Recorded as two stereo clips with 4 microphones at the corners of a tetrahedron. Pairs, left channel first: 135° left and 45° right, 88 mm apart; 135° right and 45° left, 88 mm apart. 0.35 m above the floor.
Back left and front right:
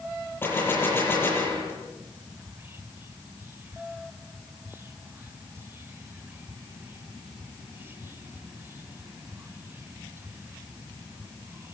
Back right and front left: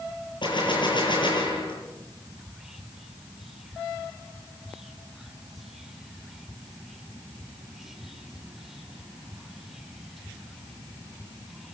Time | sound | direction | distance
0.4 | a gunshot | 160° right | 9.5 m
2.4 | whispering | 40° right | 1.2 m